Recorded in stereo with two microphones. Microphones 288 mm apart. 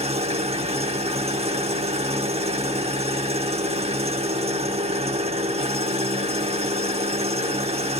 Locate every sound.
0.0 s an engine running: 20° right (ahead or behind), 0.9 m